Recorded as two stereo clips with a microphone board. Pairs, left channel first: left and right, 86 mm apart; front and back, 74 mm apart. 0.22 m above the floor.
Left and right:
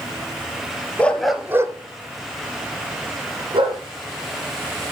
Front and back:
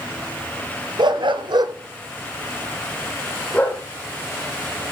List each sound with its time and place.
1.0 s a dog barking: 165° left, 1.2 m; by 3.8 s 70° right, 3 m